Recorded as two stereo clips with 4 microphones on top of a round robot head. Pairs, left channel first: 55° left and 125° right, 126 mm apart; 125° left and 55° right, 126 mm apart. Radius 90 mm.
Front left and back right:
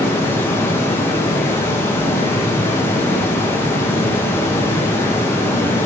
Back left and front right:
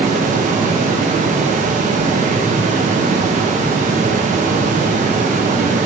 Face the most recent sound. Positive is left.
turn(degrees=-20)